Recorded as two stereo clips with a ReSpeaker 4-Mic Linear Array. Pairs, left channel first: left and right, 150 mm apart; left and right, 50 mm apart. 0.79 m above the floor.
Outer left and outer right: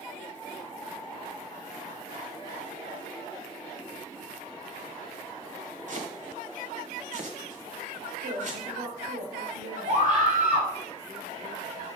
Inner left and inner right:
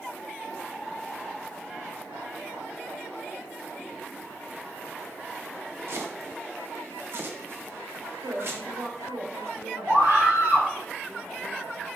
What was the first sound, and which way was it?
Chopping, 55° right (ahead or behind).